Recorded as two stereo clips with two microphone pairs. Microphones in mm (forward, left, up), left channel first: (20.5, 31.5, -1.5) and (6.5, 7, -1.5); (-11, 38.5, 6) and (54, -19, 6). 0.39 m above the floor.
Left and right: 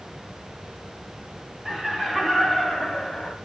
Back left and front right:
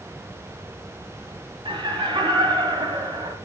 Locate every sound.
1.6 s laughter: 45° right, 2.5 m; by 3.3 s 20° right, 2 m